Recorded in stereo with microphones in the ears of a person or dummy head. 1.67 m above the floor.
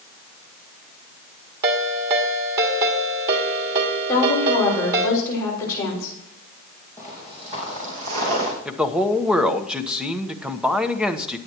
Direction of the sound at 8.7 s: 5° left (ahead or behind).